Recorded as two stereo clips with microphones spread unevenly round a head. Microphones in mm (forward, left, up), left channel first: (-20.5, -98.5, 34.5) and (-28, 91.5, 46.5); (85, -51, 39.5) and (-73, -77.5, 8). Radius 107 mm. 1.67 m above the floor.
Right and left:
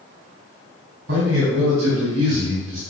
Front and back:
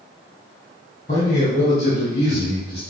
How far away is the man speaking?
About 3.5 m.